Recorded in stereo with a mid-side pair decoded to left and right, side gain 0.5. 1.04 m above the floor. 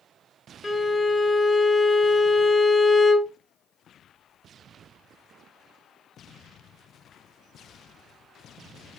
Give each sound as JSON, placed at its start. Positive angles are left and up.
{"t": 0.6, "sound": "a violin", "azimuth_deg": 20, "distance_m": 0.8}